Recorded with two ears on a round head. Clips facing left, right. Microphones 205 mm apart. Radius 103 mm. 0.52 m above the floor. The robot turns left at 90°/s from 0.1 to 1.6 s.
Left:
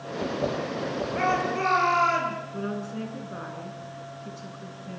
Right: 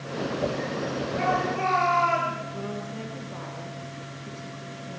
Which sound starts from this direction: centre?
A woman speaking, at 2.5 s.